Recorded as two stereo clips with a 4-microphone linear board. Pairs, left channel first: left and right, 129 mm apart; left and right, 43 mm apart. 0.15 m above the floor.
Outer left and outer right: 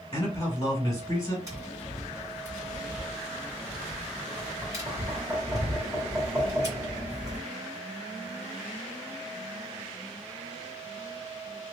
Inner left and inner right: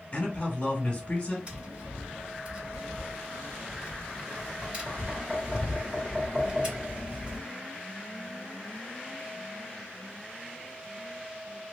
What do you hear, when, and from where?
0.1 s a man speaking: 30° left (ahead or behind), 1.1 m
1.5 s tapping: 25° right (ahead or behind), 1.8 m